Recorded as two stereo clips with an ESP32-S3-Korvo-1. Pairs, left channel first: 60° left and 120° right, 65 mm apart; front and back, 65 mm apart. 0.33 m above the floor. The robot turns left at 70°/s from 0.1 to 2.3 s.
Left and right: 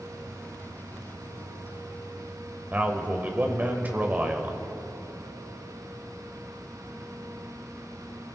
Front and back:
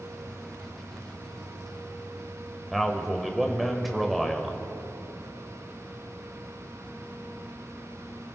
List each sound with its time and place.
2.7 s a man speaking: 90° right, 1.5 m